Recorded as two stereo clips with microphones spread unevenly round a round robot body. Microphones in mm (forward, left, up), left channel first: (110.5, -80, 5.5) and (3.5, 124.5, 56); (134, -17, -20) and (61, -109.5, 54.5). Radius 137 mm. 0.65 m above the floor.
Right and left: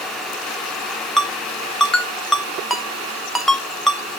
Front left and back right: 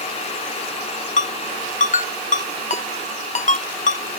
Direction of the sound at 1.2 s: 30° left.